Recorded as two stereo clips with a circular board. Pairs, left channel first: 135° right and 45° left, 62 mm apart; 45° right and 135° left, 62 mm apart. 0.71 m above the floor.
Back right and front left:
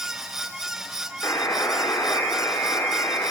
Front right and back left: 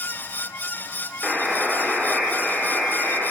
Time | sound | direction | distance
1.2 | a buzzer | 135° right | 2.0 m